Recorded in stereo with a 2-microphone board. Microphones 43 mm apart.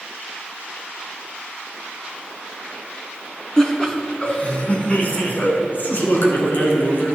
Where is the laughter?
15° left (ahead or behind), 2 m; by 7.2 s 50° left (ahead or behind), 3 m.